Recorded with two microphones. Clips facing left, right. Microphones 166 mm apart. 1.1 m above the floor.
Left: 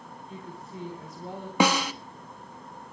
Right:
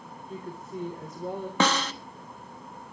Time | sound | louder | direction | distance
0.3 | a woman speaking | right 5 dB | 50° right (ahead or behind) | 3.5 m
1.6 | a snare drum | left 3 dB | 10° left (ahead or behind) | 1.1 m